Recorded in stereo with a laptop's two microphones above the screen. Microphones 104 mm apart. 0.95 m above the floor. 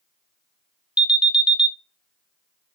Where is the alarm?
10° right (ahead or behind), 0.9 m.